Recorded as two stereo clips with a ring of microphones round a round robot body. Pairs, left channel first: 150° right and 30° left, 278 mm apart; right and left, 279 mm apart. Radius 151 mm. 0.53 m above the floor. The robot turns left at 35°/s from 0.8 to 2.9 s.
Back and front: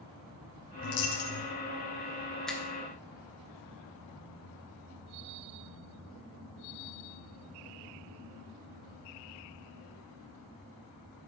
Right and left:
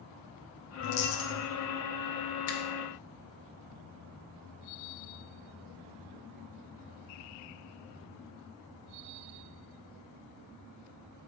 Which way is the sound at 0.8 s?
135° right.